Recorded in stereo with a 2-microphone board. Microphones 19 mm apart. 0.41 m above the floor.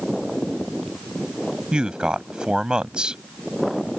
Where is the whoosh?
I don't hear a whoosh.